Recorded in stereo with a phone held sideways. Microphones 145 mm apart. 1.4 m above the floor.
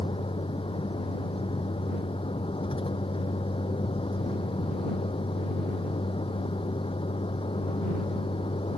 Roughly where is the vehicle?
Left.